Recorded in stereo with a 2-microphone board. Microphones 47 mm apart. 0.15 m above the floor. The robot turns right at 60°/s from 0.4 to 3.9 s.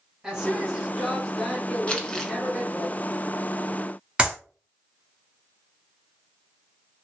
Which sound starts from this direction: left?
Crumpling, at 1.9 s.